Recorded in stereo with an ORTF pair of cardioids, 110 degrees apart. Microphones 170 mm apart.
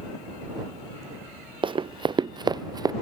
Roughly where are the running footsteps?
Ahead right.